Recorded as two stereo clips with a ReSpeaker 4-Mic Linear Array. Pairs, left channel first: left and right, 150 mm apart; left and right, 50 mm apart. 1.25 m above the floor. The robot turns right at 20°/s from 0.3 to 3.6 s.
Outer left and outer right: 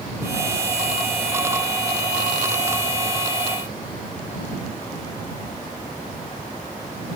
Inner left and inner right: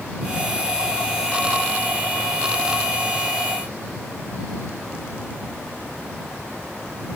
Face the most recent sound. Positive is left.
No sound to turn to.